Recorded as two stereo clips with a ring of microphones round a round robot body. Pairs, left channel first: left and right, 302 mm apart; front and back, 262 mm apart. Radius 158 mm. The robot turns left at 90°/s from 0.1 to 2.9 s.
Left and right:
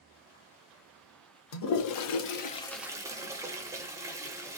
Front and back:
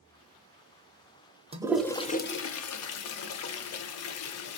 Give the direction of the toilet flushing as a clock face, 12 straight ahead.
8 o'clock.